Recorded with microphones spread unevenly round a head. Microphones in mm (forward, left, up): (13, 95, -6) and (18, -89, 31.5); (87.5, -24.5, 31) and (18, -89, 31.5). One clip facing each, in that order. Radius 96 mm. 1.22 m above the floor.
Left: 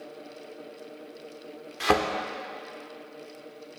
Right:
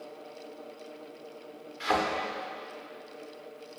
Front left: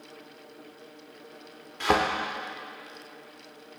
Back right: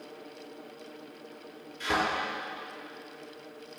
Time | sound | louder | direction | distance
1.8 | a thud | left 6 dB, front left 7 dB | 75° left | 1.2 m